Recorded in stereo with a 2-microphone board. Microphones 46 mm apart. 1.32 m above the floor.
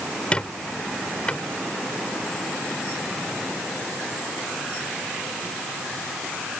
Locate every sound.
0.3 s a squeak: 25° left (ahead or behind)